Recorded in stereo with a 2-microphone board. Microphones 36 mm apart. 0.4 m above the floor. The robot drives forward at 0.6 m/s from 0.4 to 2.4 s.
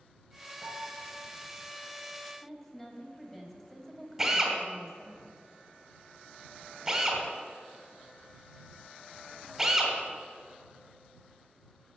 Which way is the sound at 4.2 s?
10° right (ahead or behind).